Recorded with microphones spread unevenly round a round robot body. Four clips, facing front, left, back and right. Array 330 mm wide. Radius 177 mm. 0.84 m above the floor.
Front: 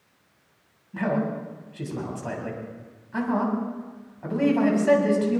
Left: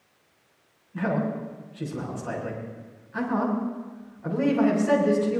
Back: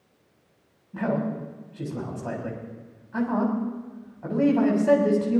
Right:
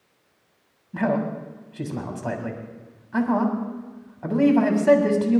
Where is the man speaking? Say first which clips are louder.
Right 3 dB, front 1 dB; 75° right, 7 m.